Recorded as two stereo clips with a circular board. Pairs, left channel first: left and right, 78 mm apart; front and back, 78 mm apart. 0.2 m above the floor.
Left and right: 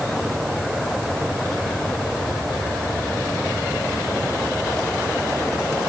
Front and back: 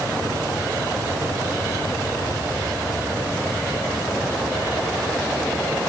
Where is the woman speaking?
I don't hear a woman speaking.